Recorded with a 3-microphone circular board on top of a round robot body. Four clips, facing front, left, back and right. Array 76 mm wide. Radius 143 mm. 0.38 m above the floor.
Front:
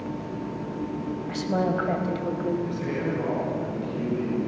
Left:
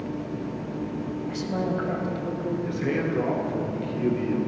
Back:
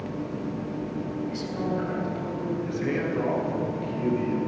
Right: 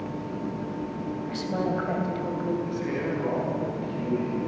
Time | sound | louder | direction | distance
1.3 | a woman speaking | even, front 7 dB | 5° right | 3.5 m
2.6 | a man speaking | left 2 dB, back 1 dB | 115° left | 9 m